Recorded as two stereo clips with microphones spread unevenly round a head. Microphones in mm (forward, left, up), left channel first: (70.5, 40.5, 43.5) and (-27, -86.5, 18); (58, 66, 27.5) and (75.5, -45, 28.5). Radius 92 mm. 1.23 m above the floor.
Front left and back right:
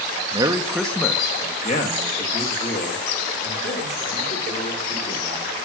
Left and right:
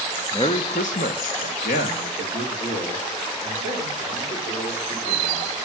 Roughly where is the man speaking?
Behind.